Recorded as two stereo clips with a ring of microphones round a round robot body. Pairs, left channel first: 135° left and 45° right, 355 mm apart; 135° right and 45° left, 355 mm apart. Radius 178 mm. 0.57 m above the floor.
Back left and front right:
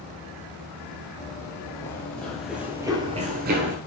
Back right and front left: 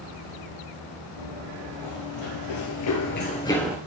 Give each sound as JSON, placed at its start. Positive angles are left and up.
{"t": 1.2, "sound": "running footsteps", "azimuth_deg": -145, "distance_m": 1.4}